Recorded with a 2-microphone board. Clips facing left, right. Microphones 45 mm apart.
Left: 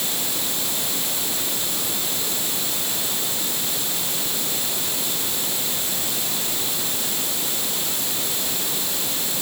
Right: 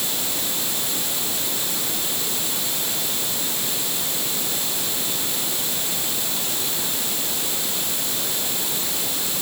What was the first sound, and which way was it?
Only background noise.